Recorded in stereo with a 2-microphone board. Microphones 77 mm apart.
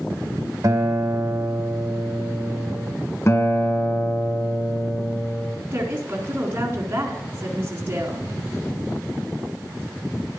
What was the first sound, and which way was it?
A guitar, 50° right (ahead or behind).